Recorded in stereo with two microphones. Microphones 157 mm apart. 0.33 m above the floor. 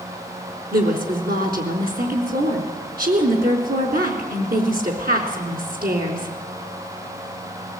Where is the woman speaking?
70° right (ahead or behind), 3.5 m.